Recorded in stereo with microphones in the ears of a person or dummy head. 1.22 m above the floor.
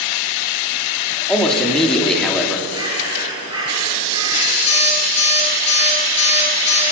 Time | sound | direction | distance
1.3 | a man speaking | centre (ahead or behind) | 3 m
2.7 | a bird | 25° right (ahead or behind) | 6.5 m
4.7 | an alarm clock | 30° left (ahead or behind) | 9.5 m